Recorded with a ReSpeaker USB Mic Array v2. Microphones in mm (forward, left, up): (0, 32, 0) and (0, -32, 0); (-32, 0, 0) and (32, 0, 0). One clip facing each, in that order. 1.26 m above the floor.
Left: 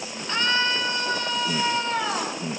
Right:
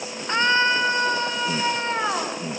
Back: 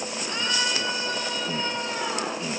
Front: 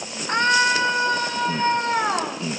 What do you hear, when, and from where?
0.3 s a scream: 35° right, 5.5 m